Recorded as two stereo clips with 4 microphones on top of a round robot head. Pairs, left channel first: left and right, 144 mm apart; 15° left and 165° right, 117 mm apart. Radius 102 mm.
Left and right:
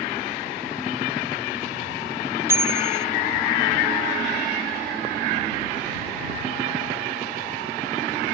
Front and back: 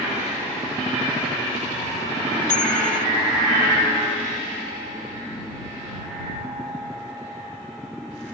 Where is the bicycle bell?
15° right.